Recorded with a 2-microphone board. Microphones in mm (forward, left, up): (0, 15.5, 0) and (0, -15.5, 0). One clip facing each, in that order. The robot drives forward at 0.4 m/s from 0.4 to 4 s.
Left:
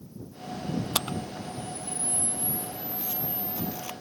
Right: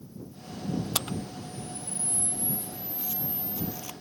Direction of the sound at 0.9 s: 15° left (ahead or behind).